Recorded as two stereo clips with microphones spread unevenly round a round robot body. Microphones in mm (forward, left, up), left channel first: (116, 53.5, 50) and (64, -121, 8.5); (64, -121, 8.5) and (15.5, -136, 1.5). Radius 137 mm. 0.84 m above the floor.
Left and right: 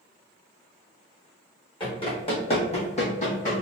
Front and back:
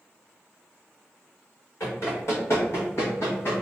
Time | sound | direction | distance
1.8 | running footsteps | 20° left | 1.9 m